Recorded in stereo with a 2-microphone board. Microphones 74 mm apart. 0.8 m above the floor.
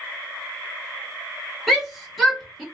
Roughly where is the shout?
Centre.